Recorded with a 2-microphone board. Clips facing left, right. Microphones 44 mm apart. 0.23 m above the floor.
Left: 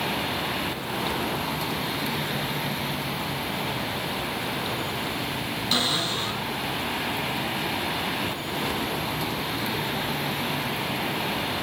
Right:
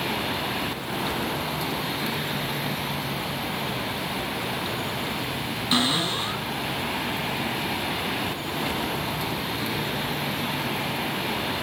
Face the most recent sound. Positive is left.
turn(degrees=-15)  # may be behind; listen again after turning